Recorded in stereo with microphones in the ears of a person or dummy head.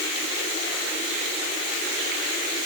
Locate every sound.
Only background noise.